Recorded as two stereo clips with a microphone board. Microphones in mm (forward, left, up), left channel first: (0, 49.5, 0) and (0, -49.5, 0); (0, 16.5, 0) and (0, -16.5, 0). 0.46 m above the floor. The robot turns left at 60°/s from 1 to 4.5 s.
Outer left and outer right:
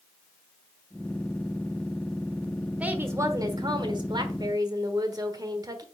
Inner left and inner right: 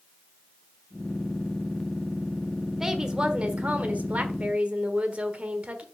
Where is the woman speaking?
20° right, 1.3 m; by 5.8 s 120° right, 1.3 m.